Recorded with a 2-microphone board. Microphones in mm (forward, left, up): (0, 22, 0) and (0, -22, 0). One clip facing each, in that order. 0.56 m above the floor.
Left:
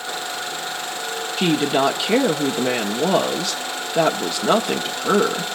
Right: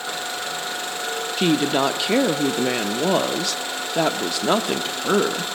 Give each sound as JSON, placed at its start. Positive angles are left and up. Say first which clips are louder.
{"t": 1.4, "sound": "a woman speaking", "louder": "left 1 dB", "side_deg": 0, "distance_m": 0.7}